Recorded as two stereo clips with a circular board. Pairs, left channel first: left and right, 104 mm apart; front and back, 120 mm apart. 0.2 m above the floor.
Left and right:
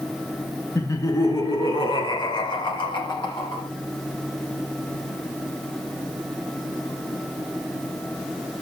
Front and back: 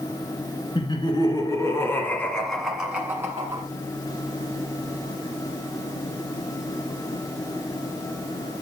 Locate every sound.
0.8 s laughter: 35° left, 2 m; by 3.6 s 120° left, 2.0 m